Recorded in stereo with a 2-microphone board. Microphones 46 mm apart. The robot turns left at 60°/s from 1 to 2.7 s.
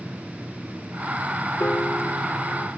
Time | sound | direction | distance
1.6 | a piano | 115° left | 1.2 m